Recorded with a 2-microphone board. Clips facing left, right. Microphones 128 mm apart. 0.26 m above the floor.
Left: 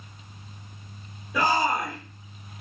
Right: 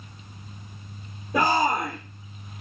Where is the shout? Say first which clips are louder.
Right 2 dB; 45° right (ahead or behind), 6 m.